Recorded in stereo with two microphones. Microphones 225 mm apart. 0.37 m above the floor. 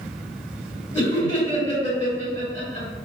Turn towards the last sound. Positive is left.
turn(degrees=25)  # may be behind; listen again after turning